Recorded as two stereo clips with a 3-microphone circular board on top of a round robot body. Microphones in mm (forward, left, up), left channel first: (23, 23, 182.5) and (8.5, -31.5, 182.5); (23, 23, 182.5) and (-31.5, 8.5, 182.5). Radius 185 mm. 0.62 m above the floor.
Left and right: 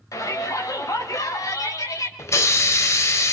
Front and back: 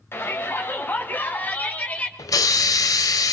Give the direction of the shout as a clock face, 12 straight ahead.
10 o'clock.